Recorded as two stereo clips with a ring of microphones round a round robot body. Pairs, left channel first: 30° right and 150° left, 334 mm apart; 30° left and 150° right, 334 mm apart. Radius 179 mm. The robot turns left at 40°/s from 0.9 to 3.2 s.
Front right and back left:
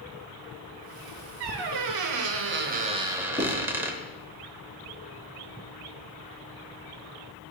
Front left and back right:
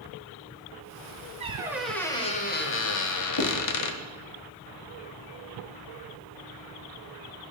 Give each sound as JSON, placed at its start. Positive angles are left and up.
{"t": 1.4, "sound": "a squeak", "azimuth_deg": 140, "distance_m": 0.8}
{"t": 3.4, "sound": "writing", "azimuth_deg": 50, "distance_m": 3.5}